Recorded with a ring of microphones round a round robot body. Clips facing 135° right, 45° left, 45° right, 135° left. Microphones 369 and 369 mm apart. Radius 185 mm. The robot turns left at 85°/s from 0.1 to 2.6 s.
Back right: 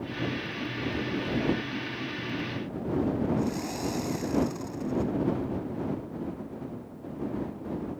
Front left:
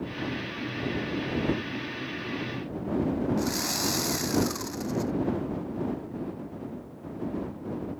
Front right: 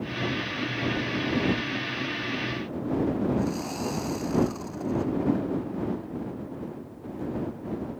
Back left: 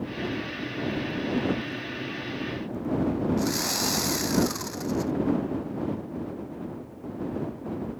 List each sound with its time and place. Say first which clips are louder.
3.4 s sawing: even, back left 1 dB; 95° left